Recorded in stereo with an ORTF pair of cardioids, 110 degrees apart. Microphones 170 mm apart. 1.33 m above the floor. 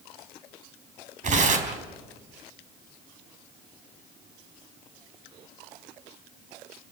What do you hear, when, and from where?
1.2 s tearing paper: 45° right, 4 m